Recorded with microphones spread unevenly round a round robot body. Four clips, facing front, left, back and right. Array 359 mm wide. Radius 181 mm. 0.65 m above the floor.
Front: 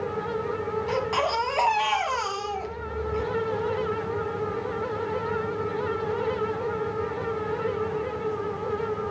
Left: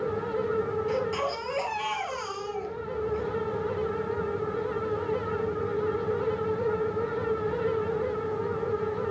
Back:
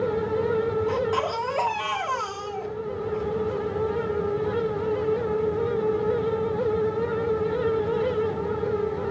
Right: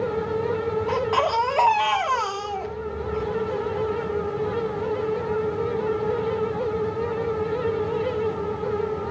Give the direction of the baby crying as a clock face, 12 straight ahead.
2 o'clock.